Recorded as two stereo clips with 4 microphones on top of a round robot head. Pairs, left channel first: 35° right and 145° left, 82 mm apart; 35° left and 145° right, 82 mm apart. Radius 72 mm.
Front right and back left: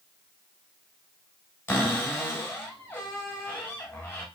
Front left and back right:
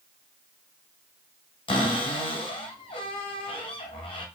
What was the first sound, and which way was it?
A cupboard door, 35° left.